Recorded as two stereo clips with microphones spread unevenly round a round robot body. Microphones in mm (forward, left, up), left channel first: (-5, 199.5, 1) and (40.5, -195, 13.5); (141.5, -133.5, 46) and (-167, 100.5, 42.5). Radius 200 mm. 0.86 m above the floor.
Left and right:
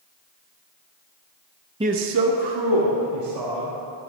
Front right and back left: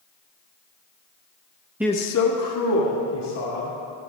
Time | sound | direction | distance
1.8 | a man speaking | 145° right | 0.5 m